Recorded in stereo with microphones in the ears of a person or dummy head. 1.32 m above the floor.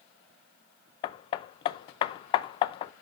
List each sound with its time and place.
1.0 s hammering: 35° left (ahead or behind), 0.6 m